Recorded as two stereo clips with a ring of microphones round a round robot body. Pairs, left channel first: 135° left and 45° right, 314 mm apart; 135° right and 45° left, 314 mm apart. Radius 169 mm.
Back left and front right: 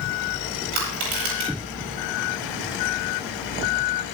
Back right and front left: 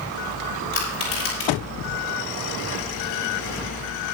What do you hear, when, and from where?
0.7 s crushing: 80° right, 9 m